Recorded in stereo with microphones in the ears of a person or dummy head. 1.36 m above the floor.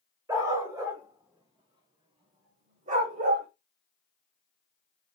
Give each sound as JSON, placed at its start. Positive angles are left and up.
{"t": 0.3, "sound": "a dog barking", "side_deg": -20, "distance_m": 2.5}